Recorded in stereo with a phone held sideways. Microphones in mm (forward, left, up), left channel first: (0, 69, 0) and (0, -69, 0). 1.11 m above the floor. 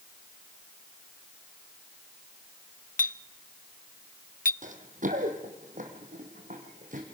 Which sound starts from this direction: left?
A clink, at 3.0 s.